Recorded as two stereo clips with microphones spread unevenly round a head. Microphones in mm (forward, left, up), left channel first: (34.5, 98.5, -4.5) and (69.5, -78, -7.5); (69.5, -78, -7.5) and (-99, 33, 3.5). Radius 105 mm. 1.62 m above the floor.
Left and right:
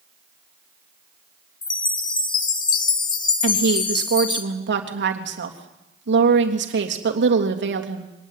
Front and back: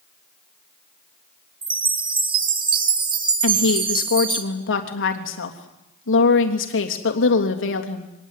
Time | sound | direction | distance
1.6 | a chime | 130° left | 1.4 m
3.4 | a woman speaking | 60° right | 3 m